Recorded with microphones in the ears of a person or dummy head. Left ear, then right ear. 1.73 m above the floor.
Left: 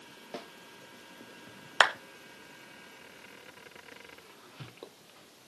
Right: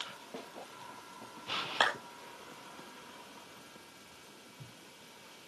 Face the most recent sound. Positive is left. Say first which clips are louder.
# left 6 dB
turn(degrees=40)  # may be behind; listen again after turning